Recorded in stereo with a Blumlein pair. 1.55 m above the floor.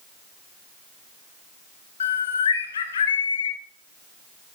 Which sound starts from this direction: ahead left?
A bird, at 2.0 s.